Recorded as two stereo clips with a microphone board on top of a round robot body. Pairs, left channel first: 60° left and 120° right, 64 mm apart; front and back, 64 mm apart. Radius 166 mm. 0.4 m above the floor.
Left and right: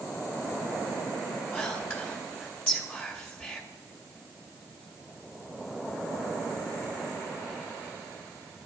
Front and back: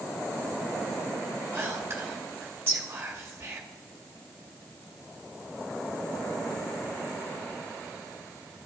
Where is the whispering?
125° left, 2.5 m.